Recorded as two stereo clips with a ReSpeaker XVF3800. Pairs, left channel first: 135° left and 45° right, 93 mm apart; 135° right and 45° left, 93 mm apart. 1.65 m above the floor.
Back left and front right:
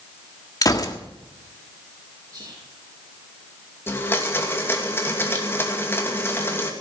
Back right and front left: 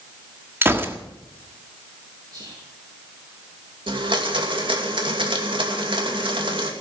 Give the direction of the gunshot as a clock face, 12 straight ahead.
9 o'clock.